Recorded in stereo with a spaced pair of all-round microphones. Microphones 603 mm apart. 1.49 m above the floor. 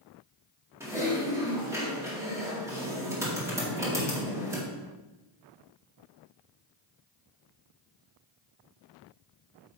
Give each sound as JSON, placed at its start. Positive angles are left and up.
{"t": 0.8, "sound": "typing on a keyboard", "side_deg": -5, "distance_m": 2.0}